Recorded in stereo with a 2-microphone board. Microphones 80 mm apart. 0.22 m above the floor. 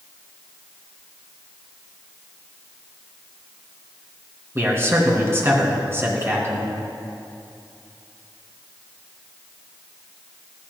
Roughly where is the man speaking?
Right.